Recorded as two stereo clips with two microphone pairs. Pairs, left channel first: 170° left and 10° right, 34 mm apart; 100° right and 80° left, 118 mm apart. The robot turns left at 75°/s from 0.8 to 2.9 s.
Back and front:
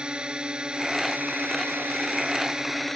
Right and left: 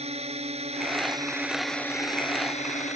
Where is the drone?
55° left; by 3.0 s 105° right.